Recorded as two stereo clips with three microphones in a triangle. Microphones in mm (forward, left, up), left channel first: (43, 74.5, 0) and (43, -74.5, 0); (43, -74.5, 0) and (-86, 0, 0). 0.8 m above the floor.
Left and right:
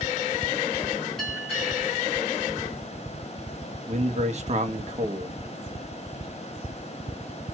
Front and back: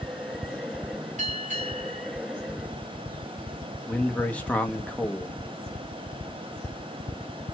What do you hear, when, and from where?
1.2 s a bell: straight behind, 3 m
3.9 s a man speaking: 110° right, 0.7 m